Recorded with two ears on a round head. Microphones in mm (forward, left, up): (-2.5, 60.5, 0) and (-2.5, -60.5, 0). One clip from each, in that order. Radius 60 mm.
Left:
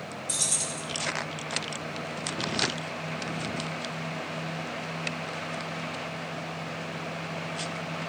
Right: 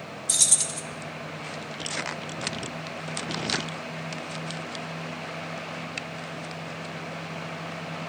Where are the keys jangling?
30° right (ahead or behind), 0.6 m.